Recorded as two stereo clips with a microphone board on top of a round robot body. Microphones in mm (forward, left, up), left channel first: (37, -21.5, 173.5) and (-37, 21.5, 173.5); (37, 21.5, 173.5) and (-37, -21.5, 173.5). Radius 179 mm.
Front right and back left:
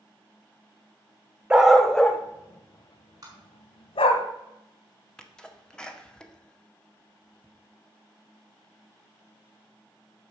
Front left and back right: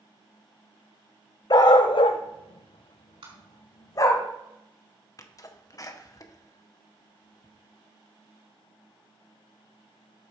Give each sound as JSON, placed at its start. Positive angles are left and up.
{"t": 1.5, "sound": "a dog barking", "azimuth_deg": 70, "distance_m": 0.8}
{"t": 3.2, "sound": "tapping", "azimuth_deg": -165, "distance_m": 4.5}
{"t": 5.2, "sound": "a sneeze", "azimuth_deg": 45, "distance_m": 1.8}